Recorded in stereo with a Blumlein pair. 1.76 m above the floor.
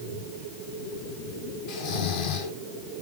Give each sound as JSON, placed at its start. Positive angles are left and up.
{"t": 1.7, "sound": "snoring", "azimuth_deg": 50, "distance_m": 2.0}